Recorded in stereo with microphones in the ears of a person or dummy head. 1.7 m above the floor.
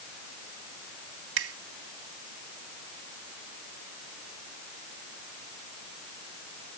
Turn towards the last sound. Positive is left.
turn(degrees=-80)